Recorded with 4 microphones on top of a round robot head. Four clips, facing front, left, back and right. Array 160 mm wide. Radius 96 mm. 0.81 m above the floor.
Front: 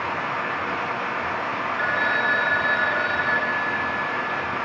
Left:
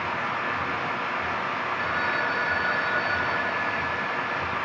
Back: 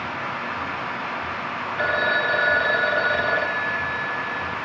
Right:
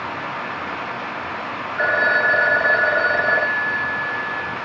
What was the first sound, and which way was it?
A phone ringing, 115° right.